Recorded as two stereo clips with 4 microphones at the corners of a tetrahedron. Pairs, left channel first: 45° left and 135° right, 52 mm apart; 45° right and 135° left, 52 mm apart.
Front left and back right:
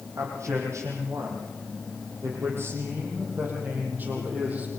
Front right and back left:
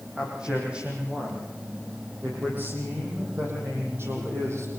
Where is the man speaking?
150° right, 9.5 m; by 4.7 s 165° left, 8.5 m.